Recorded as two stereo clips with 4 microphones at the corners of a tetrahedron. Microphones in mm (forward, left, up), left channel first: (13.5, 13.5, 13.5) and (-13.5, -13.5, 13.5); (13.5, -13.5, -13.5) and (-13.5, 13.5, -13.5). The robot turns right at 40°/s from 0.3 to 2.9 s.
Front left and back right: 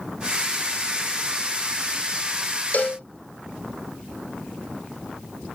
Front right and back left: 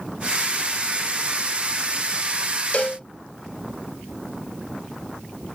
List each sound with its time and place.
2.7 s a cowbell: 5° left; by 3.0 s 10° left